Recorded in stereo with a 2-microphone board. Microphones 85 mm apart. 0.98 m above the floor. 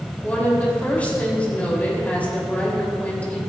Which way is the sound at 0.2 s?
20° left (ahead or behind).